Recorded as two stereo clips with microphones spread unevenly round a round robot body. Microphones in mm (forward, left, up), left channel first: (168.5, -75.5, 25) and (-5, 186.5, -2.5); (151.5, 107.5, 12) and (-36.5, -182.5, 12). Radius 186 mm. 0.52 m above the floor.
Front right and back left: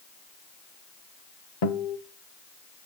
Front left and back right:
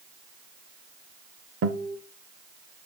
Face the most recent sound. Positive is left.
turn(degrees=-65)